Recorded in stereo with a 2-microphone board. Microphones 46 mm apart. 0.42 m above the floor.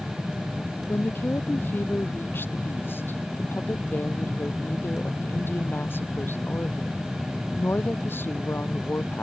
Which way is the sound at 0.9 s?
45° left (ahead or behind).